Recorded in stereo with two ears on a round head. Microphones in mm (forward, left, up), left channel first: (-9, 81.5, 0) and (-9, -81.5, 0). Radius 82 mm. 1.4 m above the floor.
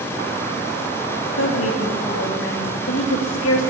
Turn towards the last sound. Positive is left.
turn(degrees=80)